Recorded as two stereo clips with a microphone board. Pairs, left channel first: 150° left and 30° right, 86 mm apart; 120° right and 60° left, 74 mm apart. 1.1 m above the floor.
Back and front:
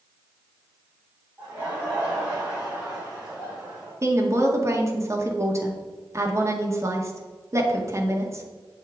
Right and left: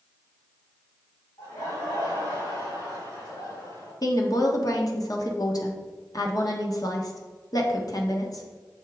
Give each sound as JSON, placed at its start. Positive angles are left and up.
{"t": 1.4, "sound": "laughter", "azimuth_deg": -105, "distance_m": 3.0}
{"t": 4.0, "sound": "a woman speaking", "azimuth_deg": -85, "distance_m": 1.6}